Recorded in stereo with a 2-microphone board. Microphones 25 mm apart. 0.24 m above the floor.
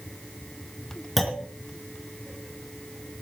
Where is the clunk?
5° left (ahead or behind), 3.5 m.